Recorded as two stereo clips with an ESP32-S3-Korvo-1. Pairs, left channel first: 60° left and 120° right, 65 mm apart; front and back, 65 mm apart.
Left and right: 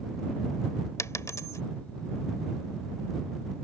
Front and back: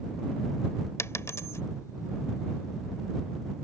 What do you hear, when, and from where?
1.0 s a dropped coin: 35° left